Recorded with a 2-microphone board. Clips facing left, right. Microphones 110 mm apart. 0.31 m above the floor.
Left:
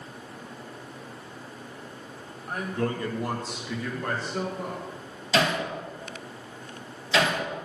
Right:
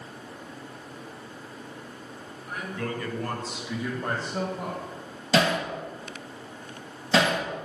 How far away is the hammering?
About 4 m.